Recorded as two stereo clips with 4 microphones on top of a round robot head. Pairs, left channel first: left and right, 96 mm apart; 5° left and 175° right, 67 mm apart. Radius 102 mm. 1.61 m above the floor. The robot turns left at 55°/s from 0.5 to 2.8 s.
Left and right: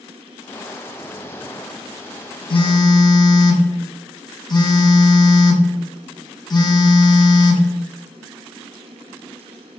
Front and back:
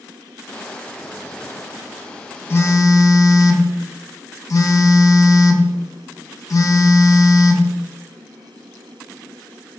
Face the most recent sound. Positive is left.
turn(degrees=45)